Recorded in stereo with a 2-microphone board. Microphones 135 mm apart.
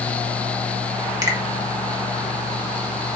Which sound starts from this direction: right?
A finger snap, at 1.2 s.